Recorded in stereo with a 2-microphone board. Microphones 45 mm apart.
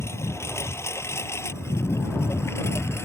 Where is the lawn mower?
85° left; by 3.1 s 80° left.